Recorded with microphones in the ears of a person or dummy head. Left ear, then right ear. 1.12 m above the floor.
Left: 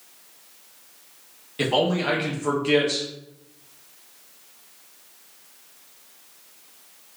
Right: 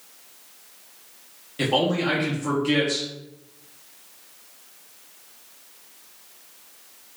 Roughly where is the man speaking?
Centre.